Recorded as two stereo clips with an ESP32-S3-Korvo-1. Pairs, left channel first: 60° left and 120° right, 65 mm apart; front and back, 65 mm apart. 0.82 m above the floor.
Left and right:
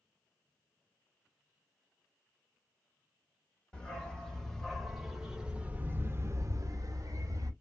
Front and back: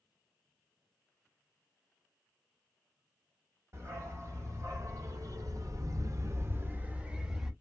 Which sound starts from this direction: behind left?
A dog barking, at 3.7 s.